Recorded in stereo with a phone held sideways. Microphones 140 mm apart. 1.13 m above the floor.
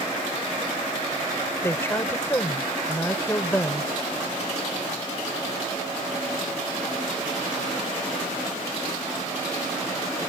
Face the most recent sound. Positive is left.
turn(degrees=15)  # may be behind; listen again after turning